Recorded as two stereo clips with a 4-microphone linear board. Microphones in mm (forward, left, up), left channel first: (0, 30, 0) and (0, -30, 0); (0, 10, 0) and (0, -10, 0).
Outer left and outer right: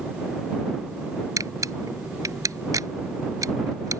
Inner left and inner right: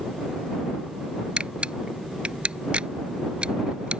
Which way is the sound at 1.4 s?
65° right (ahead or behind).